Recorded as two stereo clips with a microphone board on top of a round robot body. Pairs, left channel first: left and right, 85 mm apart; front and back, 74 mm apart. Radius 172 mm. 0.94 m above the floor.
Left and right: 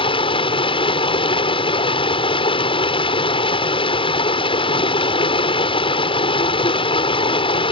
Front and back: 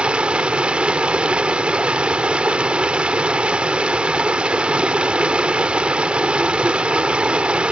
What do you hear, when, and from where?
0.0 s running water: 105° left